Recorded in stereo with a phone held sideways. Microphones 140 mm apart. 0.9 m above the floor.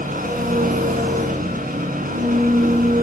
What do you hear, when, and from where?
0.0 s an engine running: 80° right, 8 m